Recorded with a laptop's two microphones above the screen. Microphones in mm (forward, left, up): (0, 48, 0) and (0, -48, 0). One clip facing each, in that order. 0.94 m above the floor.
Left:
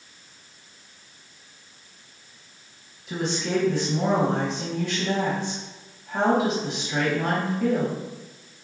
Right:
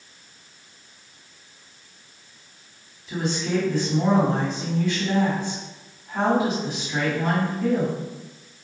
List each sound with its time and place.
3.1 s a woman speaking: 80° left, 1.2 m